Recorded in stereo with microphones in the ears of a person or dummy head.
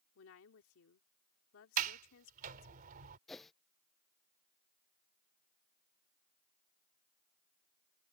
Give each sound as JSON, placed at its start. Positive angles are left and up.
{"t": 0.1, "sound": "a woman speaking", "side_deg": 80}
{"t": 1.8, "sound": "a sliding door", "side_deg": -45}
{"t": 3.3, "sound": "a whoosh", "side_deg": 0}